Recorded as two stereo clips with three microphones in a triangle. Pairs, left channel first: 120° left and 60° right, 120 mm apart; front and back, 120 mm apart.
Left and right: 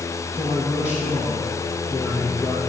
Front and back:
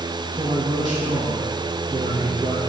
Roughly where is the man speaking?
Behind right.